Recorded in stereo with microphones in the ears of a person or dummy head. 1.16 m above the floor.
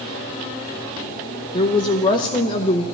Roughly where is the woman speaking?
Left.